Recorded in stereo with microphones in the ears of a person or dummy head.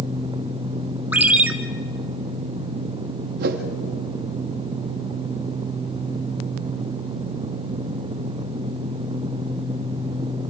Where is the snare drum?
I don't hear a snare drum.